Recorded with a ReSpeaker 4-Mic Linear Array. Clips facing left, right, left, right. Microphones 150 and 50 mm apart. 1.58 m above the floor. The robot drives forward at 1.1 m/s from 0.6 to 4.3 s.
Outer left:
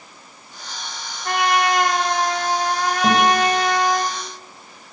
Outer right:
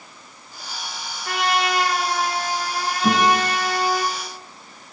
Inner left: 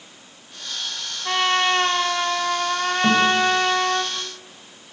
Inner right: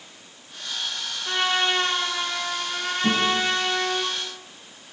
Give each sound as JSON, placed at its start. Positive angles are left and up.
{"t": 1.2, "sound": "a trumpet", "side_deg": 55, "distance_m": 4.0}
{"t": 3.0, "sound": "a guitar", "side_deg": 45, "distance_m": 7.5}